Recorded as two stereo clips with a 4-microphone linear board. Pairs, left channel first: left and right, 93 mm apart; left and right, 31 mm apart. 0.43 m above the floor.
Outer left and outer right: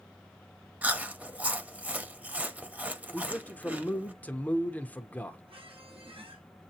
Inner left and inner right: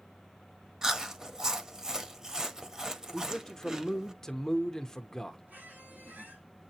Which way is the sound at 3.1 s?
15° left (ahead or behind).